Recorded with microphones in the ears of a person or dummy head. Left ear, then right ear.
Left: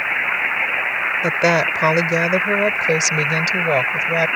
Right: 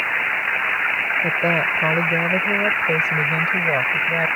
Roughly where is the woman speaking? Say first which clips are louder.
Left 2 dB; left.